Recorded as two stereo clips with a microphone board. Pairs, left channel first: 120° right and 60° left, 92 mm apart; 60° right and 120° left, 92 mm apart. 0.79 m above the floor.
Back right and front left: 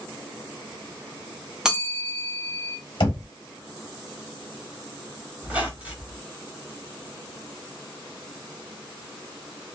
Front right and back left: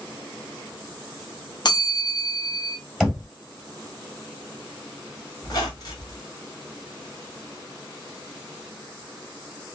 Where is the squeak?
15° right, 1.4 m.